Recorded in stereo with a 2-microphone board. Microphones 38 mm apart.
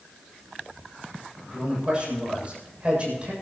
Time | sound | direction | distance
1.5 | a man speaking | 30° right (ahead or behind) | 7.5 m